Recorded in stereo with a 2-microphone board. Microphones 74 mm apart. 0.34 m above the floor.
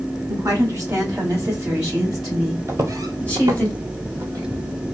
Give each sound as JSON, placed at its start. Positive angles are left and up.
{"t": 0.3, "sound": "a woman speaking", "side_deg": -45, "distance_m": 1.5}
{"t": 2.7, "sound": "footsteps", "side_deg": -40, "distance_m": 0.6}